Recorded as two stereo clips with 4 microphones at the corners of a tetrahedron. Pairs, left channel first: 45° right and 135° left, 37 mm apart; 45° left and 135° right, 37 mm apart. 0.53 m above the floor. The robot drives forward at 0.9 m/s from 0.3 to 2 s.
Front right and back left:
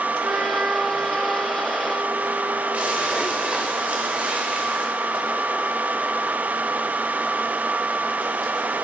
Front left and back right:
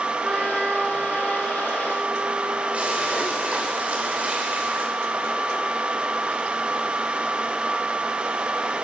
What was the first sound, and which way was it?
A trumpet, 160° left.